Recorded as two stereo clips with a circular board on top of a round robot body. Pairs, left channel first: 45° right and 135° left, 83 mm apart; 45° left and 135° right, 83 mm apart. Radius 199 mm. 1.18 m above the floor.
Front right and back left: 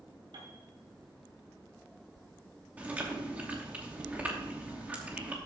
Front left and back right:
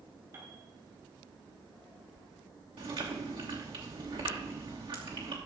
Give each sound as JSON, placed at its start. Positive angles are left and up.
{"t": 0.3, "sound": "a piano", "azimuth_deg": 165, "distance_m": 4.5}
{"t": 2.8, "sound": "chewing", "azimuth_deg": -155, "distance_m": 3.0}